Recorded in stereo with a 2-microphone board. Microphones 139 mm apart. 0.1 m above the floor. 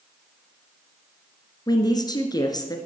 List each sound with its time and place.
1.7 s a woman speaking: 30° left (ahead or behind), 1.4 m